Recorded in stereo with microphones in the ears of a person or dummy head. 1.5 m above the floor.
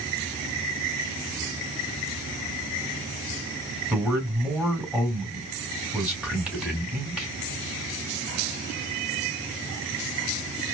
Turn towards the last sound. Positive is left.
turn(degrees=0)  # may be behind; listen again after turning